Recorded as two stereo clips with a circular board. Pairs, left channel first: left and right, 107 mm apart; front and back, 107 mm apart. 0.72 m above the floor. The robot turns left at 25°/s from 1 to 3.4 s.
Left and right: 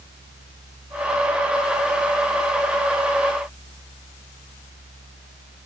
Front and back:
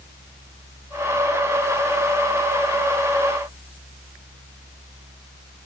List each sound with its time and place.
Only background noise.